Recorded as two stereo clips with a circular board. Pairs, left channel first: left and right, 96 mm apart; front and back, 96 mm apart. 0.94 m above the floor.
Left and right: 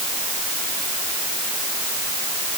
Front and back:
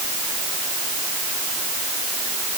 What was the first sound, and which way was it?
Only background noise.